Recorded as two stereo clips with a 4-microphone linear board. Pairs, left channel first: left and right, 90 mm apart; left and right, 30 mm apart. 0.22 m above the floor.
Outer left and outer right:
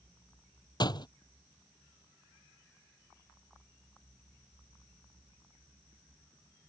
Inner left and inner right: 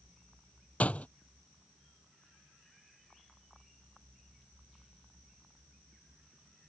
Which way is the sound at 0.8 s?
50° left (ahead or behind).